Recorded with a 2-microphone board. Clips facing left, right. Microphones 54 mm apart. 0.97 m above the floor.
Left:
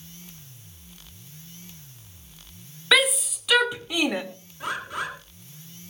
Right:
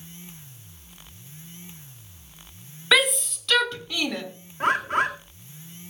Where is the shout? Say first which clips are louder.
Even; centre (ahead or behind), 1.6 m; by 4.2 s 25° left (ahead or behind), 1.9 m.